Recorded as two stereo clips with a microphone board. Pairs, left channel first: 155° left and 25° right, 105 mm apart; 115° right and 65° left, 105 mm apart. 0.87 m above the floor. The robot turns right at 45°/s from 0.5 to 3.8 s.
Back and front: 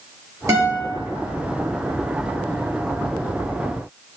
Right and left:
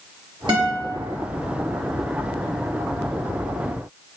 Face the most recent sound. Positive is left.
turn(degrees=180)